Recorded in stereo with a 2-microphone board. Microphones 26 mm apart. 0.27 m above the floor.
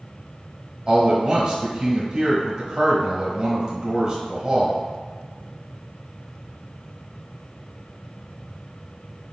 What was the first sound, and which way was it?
A man speaking, 20° right (ahead or behind).